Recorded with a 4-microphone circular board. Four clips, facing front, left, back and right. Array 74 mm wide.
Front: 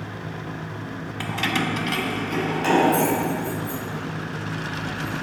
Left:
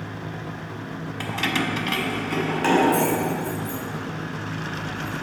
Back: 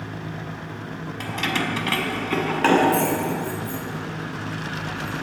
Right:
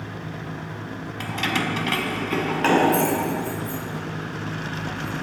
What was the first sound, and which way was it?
Keys jangling, 30° left.